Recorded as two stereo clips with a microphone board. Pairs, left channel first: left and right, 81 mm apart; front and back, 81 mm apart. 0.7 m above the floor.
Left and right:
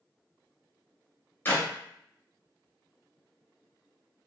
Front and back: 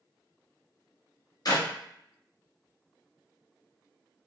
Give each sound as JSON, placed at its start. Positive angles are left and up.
{"t": 1.4, "sound": "a clap", "azimuth_deg": 30, "distance_m": 0.6}